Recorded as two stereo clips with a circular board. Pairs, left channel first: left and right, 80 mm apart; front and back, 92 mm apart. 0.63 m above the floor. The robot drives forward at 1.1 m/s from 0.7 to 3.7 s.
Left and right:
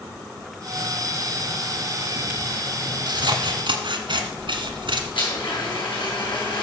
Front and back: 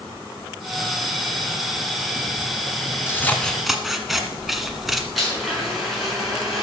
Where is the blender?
90° left, 5.5 m.